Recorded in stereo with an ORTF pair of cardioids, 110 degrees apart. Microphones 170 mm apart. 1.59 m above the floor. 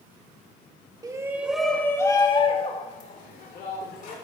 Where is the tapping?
No tapping in this recording.